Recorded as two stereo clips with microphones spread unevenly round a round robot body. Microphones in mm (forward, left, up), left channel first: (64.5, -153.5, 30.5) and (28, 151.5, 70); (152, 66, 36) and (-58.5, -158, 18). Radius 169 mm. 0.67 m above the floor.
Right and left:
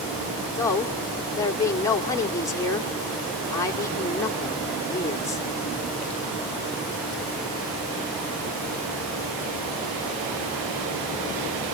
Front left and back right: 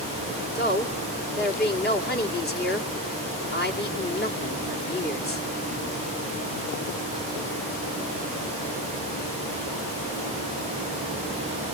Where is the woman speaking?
10° right, 2 m.